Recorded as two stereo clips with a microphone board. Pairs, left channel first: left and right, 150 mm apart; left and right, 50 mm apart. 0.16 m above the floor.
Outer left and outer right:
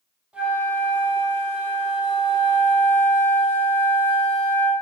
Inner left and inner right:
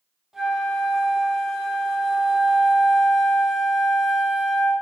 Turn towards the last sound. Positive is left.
turn(degrees=-10)  # may be behind; listen again after turning